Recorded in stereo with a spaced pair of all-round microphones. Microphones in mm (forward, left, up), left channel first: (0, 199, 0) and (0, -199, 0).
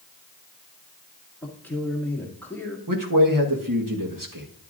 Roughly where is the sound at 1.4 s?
Centre.